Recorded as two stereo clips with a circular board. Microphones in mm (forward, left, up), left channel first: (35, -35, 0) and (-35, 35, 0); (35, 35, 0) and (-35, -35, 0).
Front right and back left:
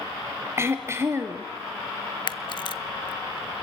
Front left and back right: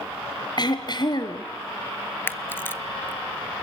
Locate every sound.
0.6 s throat clearing: 75° left, 1.9 m
2.3 s a camera shutter: 20° right, 0.5 m